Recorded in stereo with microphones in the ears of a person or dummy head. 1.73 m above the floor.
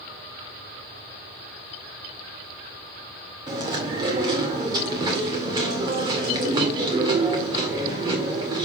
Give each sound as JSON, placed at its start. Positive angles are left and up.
{"t": 3.5, "sound": "chewing", "side_deg": -25, "distance_m": 2.0}